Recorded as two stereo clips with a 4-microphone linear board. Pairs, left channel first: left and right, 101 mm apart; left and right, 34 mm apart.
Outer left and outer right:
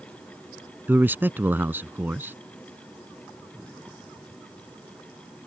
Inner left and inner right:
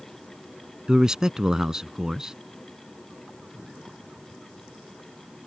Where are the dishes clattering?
No dishes clattering in this recording.